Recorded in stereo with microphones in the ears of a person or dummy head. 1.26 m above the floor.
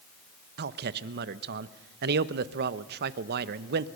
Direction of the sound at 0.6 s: 70° right (ahead or behind).